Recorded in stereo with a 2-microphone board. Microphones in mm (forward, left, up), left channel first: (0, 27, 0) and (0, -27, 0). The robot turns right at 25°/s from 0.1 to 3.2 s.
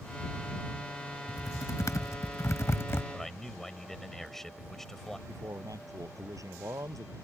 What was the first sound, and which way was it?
Typing on a keyboard, 85° left.